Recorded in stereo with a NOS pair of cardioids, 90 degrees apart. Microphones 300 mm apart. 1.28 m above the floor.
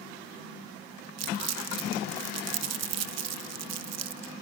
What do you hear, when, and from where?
1.2 s crumpling: 60° right, 0.7 m